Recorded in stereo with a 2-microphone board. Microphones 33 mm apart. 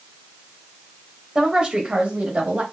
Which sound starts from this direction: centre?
A woman speaking, at 1.4 s.